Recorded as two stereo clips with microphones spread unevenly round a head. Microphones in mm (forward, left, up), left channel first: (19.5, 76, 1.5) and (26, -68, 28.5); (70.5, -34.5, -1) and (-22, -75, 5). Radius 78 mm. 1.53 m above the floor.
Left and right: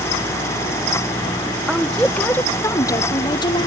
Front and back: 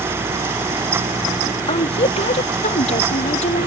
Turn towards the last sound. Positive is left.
turn(degrees=35)